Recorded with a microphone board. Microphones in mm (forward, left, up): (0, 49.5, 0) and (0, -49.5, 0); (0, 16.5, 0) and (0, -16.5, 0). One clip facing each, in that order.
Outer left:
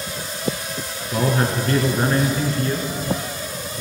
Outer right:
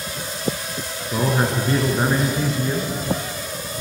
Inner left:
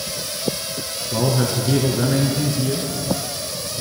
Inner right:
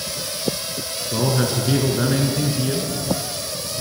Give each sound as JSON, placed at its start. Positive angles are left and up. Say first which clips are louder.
{"t": 1.1, "sound": "a man speaking", "louder": "even, even", "side_deg": -15, "distance_m": 1.4}